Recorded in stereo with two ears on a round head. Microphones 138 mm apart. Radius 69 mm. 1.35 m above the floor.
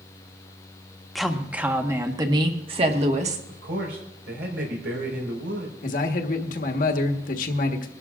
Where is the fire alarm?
No fire alarm in this recording.